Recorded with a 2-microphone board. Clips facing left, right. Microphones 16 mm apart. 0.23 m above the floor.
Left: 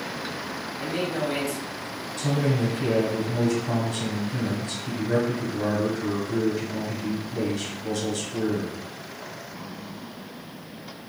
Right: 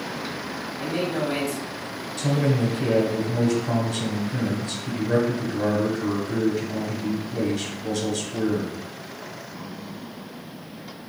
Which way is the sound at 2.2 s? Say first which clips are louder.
Right 2 dB; 15° right (ahead or behind).